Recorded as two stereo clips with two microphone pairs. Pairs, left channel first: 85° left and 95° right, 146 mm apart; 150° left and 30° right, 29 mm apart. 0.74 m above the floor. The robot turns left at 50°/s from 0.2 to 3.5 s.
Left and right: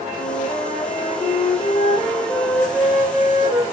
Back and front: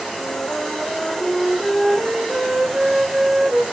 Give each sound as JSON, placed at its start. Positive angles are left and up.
{"t": 0.2, "sound": "a flute", "azimuth_deg": 130, "distance_m": 2.0}